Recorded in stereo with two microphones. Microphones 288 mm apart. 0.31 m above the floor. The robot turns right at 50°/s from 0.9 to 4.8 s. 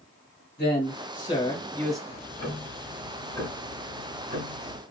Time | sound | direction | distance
0.6 | a man speaking | 130° left | 1.3 m
2.1 | ticking | 105° left | 0.9 m